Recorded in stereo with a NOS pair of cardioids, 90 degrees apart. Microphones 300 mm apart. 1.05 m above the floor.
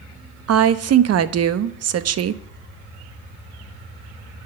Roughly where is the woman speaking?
Ahead right.